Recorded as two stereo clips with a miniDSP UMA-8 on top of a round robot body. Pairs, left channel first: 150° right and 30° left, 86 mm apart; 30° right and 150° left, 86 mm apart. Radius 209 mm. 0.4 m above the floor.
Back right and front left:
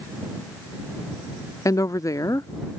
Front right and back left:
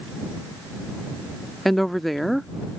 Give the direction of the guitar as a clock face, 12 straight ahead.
I don't hear a guitar.